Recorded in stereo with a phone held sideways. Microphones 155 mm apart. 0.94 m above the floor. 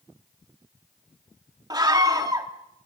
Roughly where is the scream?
Right.